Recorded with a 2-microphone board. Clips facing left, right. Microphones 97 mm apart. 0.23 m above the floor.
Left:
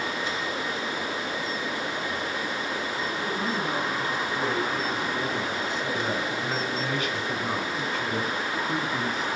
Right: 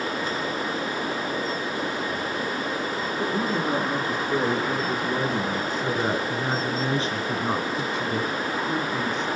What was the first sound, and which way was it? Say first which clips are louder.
A woman speaking: right 5 dB; 55° right (ahead or behind).